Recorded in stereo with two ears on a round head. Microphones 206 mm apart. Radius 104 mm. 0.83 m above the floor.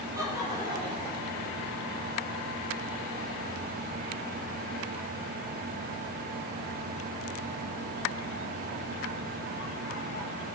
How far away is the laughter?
About 3 m.